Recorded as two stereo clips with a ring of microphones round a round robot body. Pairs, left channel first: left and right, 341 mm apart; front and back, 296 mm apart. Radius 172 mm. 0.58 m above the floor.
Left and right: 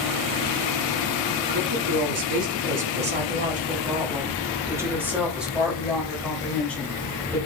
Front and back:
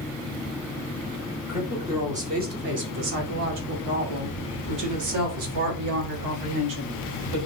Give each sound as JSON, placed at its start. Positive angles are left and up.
{"t": 1.5, "sound": "a woman speaking", "azimuth_deg": -100, "distance_m": 1.4}